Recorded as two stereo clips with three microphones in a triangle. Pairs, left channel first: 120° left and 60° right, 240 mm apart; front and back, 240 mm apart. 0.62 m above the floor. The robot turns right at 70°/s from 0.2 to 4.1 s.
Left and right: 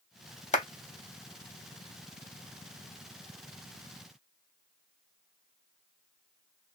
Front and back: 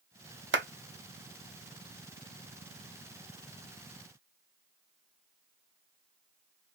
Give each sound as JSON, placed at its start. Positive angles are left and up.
{"t": 0.5, "sound": "a clap", "azimuth_deg": 170, "distance_m": 0.7}